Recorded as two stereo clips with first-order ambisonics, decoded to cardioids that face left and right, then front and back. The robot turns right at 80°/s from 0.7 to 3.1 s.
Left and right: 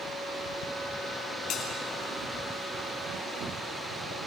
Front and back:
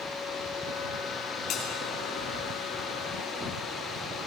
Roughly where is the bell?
Ahead left.